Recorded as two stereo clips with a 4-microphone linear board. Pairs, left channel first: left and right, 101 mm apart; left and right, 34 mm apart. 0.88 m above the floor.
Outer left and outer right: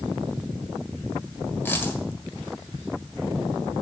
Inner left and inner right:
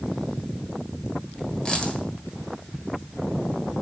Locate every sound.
1.6 s a dropped coin: 20° left (ahead or behind), 1.6 m